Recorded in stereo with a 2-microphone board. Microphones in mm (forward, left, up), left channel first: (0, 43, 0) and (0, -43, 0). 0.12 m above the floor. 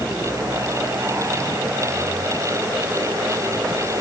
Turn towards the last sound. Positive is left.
No sound to turn to.